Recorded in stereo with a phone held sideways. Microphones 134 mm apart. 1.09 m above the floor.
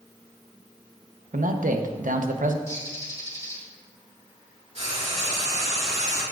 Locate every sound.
1.3 s a man speaking: 80° right, 0.8 m
2.7 s a bird: 25° left (ahead or behind), 2.5 m
4.8 s frying: 55° right (ahead or behind), 3 m